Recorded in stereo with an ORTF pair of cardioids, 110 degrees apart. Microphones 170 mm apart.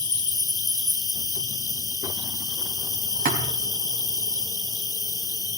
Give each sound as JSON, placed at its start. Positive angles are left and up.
{"t": 0.0, "sound": "an insect", "azimuth_deg": 25, "distance_m": 1.2}
{"t": 3.2, "sound": "a thud", "azimuth_deg": -60, "distance_m": 3.0}